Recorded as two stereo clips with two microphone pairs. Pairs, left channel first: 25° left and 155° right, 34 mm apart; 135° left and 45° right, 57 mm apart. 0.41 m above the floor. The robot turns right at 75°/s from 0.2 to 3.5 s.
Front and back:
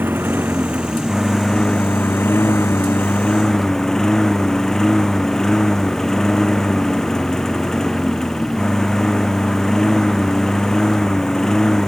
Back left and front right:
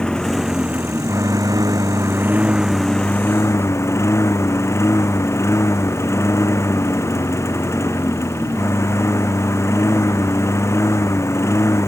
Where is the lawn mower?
150° right; by 11.9 s 100° left.